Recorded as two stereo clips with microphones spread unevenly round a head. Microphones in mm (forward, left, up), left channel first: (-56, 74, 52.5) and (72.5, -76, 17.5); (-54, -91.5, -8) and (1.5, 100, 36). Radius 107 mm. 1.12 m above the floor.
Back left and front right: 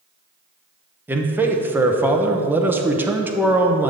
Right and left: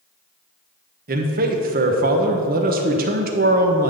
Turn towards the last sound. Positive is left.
turn(degrees=25)